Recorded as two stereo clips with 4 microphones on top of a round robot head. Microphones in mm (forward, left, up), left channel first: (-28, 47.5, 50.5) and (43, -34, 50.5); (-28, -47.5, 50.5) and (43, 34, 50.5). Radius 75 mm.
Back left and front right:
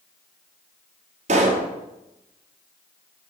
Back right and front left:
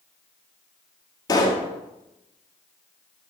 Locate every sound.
1.3 s a pop: 75° right, 1.7 m